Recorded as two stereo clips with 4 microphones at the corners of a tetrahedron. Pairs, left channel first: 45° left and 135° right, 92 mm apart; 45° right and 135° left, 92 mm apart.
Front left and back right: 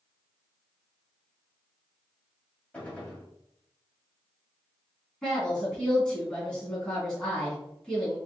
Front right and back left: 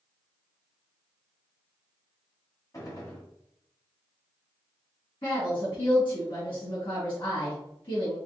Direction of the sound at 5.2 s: 35° right.